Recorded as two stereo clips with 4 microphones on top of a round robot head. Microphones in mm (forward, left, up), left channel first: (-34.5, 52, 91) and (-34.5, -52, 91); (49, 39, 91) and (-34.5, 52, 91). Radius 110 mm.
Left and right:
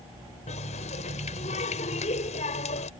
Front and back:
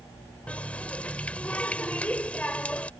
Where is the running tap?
65° left.